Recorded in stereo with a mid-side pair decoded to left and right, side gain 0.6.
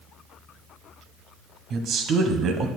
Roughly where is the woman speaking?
Ahead right.